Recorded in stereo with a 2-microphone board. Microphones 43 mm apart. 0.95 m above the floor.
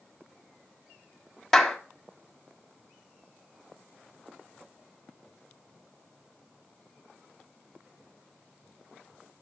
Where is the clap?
5° left (ahead or behind), 1.9 m.